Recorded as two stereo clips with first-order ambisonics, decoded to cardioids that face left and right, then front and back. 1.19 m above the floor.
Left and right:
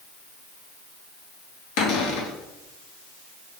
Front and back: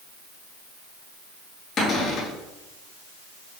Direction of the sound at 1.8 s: 70° left.